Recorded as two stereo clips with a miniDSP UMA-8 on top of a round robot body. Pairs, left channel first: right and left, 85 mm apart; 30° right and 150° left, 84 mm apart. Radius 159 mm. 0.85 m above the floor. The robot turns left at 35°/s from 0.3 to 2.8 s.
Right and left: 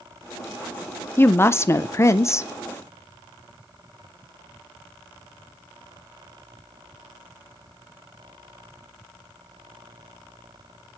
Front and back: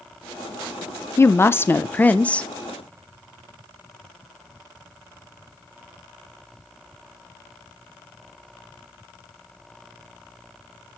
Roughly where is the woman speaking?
Ahead right.